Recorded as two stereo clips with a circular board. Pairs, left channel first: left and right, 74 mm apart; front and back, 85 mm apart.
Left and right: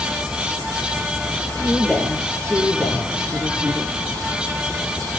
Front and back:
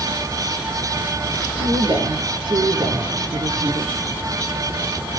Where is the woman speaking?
Straight behind, 4.5 m; by 3.9 s 160° left, 4.5 m.